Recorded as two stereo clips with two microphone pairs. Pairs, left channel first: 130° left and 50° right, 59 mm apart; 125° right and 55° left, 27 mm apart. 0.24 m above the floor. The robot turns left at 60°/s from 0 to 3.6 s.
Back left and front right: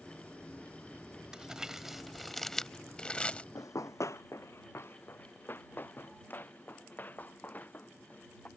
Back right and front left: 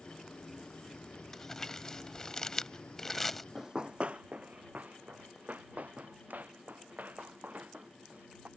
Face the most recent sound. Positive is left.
turn(degrees=65)